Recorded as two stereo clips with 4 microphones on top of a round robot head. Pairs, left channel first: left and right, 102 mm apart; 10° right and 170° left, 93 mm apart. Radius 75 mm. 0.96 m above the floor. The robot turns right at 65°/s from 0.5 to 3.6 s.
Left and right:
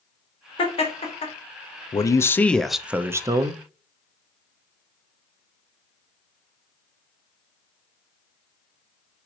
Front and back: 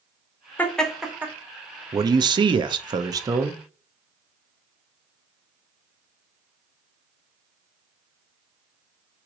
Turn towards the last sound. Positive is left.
turn(degrees=-120)